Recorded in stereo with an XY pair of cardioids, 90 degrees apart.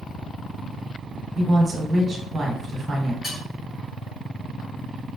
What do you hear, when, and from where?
1.4 s a woman speaking: 50° right, 1.0 m
3.2 s cutlery clinking: 55° left, 1.8 m